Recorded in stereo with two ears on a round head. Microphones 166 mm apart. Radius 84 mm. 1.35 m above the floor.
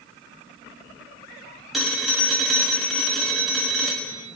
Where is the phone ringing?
Centre (ahead or behind), 1.4 m.